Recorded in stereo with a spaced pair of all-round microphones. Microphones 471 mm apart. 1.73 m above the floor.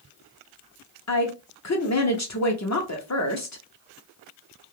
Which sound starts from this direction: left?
A woman speaking, at 1.1 s.